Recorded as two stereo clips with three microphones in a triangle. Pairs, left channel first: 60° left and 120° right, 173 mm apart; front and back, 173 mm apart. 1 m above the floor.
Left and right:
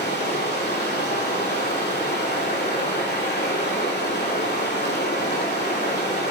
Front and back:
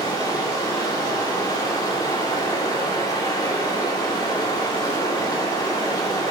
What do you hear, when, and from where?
0.0 s running water: 70° left, 2.5 m